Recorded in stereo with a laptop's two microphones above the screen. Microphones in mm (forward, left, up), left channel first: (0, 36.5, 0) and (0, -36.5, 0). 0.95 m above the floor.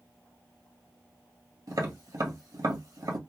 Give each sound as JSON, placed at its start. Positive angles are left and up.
{"t": 1.7, "sound": "tapping", "side_deg": -65, "distance_m": 1.7}